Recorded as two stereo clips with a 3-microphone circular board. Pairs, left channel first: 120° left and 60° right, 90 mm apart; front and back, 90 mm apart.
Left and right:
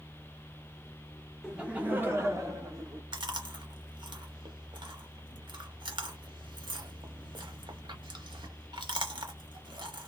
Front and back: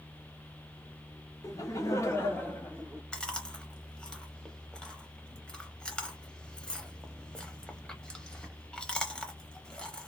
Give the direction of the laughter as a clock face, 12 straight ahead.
11 o'clock.